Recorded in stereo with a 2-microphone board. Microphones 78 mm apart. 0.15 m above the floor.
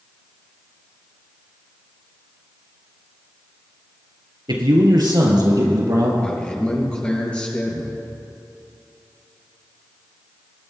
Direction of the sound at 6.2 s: 15° left (ahead or behind).